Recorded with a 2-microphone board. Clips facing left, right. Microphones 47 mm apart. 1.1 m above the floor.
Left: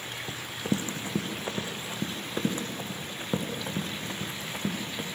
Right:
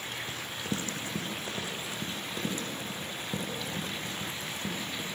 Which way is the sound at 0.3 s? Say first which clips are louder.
Left 7 dB; 25° left (ahead or behind).